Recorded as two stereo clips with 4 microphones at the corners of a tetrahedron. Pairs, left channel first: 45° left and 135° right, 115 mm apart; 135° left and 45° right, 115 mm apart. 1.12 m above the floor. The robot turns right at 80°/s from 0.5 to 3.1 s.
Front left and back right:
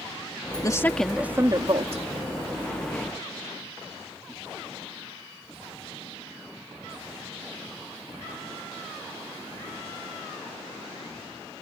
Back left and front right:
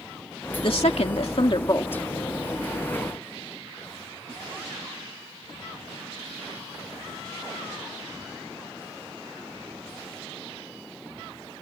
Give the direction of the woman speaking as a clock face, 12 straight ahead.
9 o'clock.